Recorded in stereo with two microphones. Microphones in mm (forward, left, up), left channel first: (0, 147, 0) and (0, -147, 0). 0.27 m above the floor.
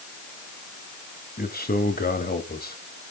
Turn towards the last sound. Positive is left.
turn(degrees=30)  # may be behind; listen again after turning